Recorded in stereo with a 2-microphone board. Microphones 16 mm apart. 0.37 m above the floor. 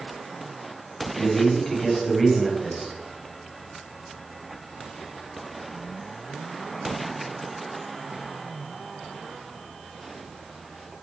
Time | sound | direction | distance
1.1 | a man speaking | 15° left (ahead or behind) | 2.5 m